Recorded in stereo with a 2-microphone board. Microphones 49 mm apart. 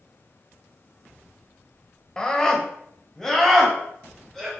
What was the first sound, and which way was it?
A scream, 15° left (ahead or behind).